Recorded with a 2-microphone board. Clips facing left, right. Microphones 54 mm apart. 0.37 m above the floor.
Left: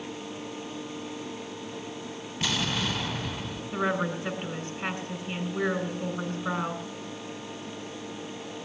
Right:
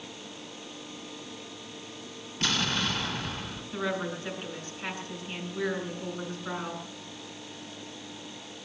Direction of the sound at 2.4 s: 10° left (ahead or behind).